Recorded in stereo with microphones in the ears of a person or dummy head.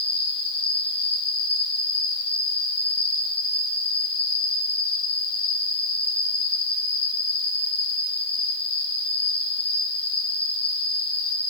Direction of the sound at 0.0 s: 60° left (ahead or behind).